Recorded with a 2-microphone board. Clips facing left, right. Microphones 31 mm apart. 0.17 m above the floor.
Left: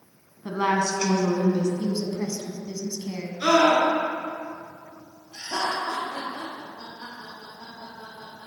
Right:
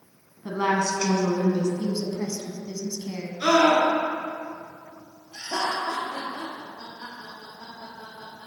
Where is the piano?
No piano in this recording.